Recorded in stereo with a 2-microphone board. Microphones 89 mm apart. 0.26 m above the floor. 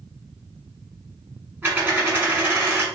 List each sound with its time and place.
1.6 s a dropped coin: 25° right (ahead or behind), 1.2 m